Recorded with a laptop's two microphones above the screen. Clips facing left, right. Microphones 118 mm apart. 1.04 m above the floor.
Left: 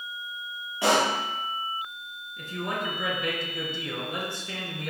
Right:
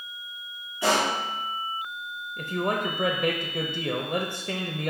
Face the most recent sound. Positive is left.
turn(degrees=-50)  # may be behind; listen again after turning